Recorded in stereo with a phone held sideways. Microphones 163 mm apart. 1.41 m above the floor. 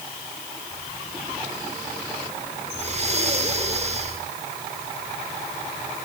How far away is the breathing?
About 3 m.